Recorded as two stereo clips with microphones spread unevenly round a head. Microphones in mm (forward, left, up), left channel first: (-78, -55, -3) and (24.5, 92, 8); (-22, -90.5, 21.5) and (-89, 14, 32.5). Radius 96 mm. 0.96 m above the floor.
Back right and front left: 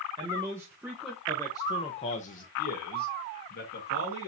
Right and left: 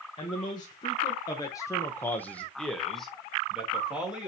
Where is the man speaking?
10° right, 1.1 m; by 4.3 s 155° right, 1.7 m.